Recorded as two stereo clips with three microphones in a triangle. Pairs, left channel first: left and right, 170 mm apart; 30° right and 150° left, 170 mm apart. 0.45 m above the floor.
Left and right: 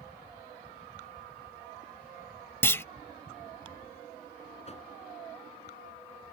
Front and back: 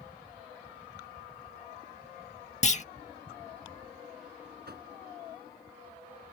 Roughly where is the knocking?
Behind left.